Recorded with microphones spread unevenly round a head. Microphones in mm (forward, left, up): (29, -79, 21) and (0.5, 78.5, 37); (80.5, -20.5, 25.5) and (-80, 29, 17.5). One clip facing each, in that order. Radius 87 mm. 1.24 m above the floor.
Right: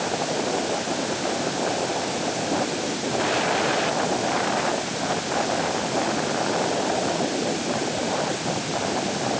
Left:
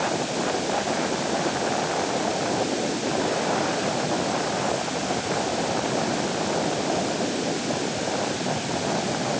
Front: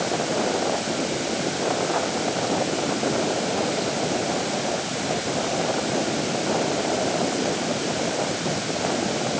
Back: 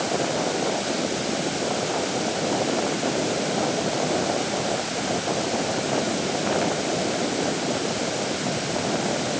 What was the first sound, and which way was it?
Only background noise.